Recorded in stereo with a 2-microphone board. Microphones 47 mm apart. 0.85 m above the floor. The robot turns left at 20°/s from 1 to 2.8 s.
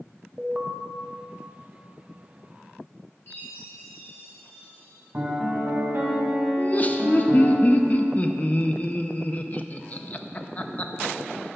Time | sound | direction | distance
0.4 | an alarm | 15° right (ahead or behind) | 0.9 m
3.3 | a chime | 50° left (ahead or behind) | 2.5 m
5.1 | a piano | 40° right (ahead or behind) | 1.9 m
6.6 | laughter | 35° left (ahead or behind) | 0.6 m